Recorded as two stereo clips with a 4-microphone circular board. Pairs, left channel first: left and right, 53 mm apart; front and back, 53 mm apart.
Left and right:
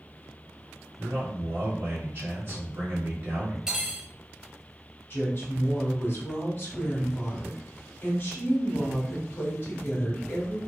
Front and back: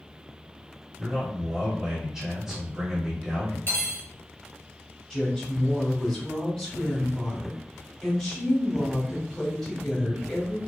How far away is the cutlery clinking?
About 0.7 m.